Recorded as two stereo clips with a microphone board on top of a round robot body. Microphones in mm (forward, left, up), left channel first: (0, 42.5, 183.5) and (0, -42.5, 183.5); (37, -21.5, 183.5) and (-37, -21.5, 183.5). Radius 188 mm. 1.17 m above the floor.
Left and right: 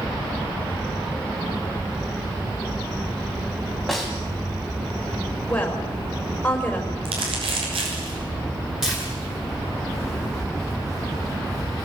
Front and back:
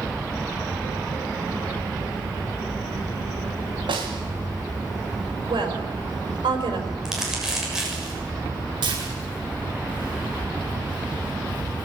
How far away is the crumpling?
About 7 m.